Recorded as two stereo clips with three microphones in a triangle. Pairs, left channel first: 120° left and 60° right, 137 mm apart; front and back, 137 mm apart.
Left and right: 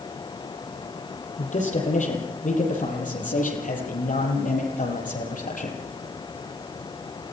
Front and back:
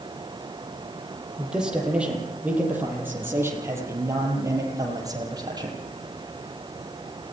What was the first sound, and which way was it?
A man speaking, 95° left.